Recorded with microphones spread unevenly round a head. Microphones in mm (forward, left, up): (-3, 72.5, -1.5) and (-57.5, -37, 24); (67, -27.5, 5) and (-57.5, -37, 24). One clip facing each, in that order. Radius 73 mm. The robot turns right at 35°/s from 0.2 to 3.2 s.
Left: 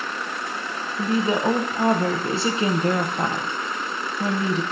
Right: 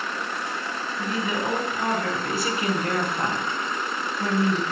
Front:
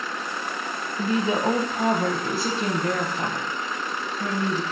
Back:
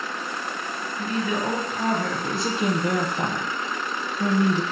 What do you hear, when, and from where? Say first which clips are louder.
1.0 s a woman speaking: left 6 dB, front 3 dB; 30° left, 0.5 m; by 4.6 s 110° left, 0.5 m